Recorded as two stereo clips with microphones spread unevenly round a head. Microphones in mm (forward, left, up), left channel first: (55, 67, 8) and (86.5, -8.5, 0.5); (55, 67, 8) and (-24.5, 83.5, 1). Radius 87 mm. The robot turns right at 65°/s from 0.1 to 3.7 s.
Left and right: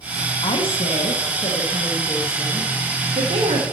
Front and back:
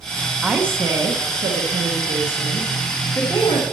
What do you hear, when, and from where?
0.4 s a woman speaking: 85° left, 1.0 m; by 3.6 s 65° right, 1.0 m